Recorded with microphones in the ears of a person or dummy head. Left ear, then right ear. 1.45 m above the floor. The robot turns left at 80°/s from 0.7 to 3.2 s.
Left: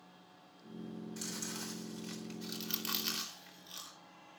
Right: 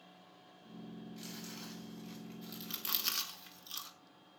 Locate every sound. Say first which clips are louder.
1.2 s chewing: left 6 dB; 40° left (ahead or behind), 4 m; by 3.9 s 25° right (ahead or behind), 4 m